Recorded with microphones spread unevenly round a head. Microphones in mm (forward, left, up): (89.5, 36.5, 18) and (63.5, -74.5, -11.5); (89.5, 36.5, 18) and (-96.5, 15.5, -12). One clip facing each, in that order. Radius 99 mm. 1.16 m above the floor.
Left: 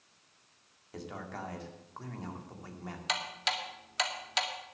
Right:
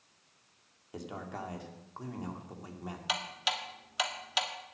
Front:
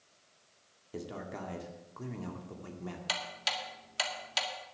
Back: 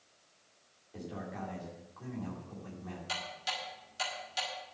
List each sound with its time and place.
0.9 s a man speaking: 30° right, 2.5 m
3.1 s ticking: 20° right, 1.8 m